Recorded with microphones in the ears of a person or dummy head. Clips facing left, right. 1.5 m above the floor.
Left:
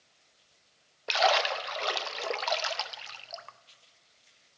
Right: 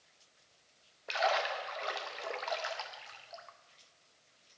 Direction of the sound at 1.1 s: 60° left (ahead or behind).